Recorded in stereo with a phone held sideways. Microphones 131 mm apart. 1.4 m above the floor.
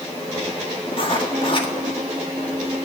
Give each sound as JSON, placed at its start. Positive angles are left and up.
{"t": 0.9, "sound": "writing", "side_deg": 40, "distance_m": 1.7}